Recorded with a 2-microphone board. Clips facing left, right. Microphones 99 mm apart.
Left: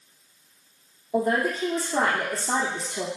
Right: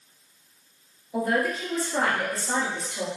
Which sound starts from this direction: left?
A man speaking, at 1.1 s.